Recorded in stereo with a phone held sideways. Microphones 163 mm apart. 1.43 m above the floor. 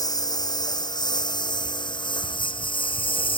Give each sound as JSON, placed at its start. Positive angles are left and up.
{"t": 0.0, "sound": "a lawn mower", "side_deg": 20}